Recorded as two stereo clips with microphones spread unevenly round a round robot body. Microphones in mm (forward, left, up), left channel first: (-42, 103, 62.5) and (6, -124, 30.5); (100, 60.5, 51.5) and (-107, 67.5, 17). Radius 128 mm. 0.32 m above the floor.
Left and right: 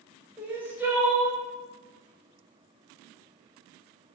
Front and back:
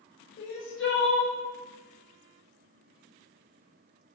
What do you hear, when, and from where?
0.4 s crying: 5° right, 0.7 m